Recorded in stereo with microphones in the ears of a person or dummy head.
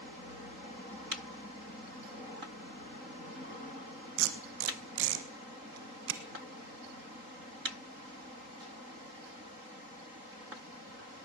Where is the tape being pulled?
70° right (ahead or behind), 1.3 m.